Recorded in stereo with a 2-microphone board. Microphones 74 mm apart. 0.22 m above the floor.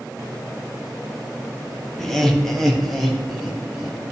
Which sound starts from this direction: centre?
Laughter, at 2.0 s.